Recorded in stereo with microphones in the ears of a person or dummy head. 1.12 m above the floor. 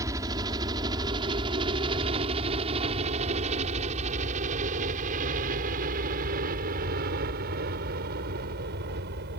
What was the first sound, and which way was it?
A helicopter, 20° right (ahead or behind).